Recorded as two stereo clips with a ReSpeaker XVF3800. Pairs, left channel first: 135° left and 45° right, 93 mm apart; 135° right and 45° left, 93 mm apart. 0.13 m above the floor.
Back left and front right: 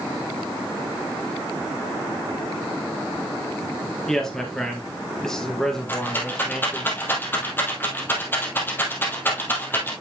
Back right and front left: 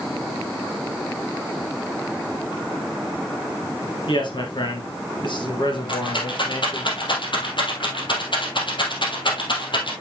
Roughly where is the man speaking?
Behind right.